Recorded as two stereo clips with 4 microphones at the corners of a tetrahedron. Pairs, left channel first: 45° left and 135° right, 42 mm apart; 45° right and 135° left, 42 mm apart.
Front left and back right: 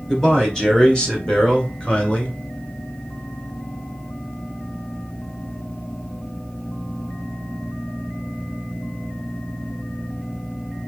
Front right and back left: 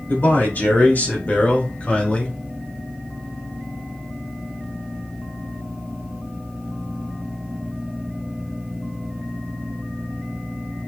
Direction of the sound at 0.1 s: 30° right.